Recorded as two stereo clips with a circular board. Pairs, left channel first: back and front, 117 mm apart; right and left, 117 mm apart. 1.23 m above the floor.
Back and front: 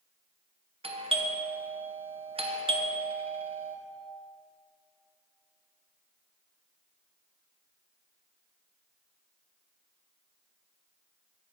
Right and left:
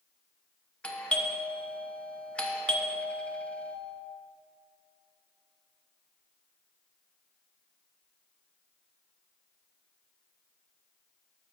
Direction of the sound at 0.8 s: 10° right.